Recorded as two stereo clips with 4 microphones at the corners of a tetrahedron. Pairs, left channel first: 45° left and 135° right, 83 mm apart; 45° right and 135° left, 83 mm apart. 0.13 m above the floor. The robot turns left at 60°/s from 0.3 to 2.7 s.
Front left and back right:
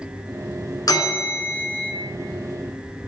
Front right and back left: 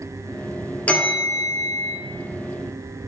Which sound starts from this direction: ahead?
A bell, at 0.9 s.